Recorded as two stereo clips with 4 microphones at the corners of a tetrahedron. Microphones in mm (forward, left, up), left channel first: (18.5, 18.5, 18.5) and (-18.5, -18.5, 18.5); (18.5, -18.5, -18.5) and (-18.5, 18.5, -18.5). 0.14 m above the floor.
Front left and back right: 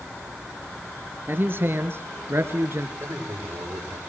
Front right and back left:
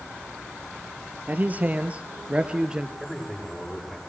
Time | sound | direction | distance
1.3 | a man speaking | 175° right | 2.5 m
3.0 | a man speaking | 125° right | 7 m